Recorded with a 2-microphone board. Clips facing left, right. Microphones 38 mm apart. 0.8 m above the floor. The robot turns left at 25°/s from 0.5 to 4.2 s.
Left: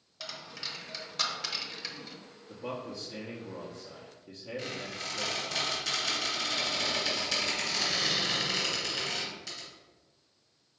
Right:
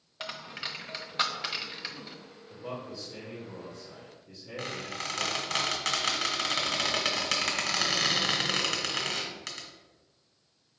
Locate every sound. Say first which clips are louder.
0.2 s a dropped coin: right 4 dB; 35° right (ahead or behind), 0.6 m; by 2.2 s 10° right (ahead or behind), 0.6 m
2.5 s a man speaking: left 1 dB; 90° left, 0.9 m; by 5.6 s 45° left, 0.9 m
4.6 s a squeak: right 3 dB; 65° right (ahead or behind), 1.1 m